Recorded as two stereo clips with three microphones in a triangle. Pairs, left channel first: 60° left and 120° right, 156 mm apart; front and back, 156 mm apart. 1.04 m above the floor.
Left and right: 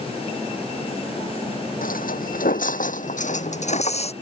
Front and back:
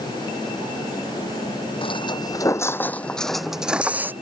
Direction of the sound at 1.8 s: 50° left.